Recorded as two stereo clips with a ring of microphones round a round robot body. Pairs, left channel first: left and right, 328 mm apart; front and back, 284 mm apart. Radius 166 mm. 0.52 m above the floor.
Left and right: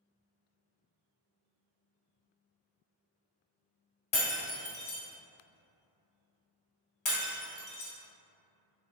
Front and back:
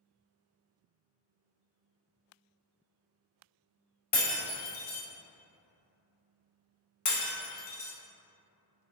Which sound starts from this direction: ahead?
Breaking glass, at 4.1 s.